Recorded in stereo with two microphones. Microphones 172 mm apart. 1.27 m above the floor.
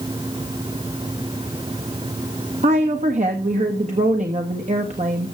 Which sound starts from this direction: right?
A woman speaking, at 2.6 s.